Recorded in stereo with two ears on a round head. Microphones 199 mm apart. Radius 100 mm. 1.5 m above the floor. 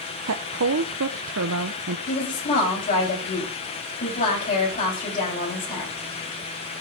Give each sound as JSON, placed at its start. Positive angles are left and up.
{"t": 0.3, "sound": "a woman speaking", "side_deg": -70, "distance_m": 0.8}
{"t": 2.1, "sound": "a woman speaking", "side_deg": 40, "distance_m": 8.0}